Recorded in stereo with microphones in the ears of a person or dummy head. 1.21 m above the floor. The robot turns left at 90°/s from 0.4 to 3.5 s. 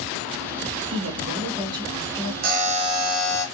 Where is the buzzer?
105° right, 0.6 m; by 3.5 s 165° left, 0.6 m.